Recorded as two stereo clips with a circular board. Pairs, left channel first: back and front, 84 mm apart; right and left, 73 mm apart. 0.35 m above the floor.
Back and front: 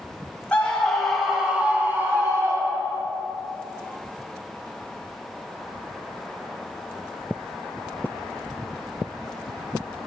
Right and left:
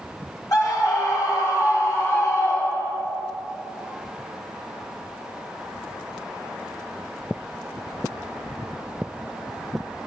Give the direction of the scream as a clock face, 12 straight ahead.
4 o'clock.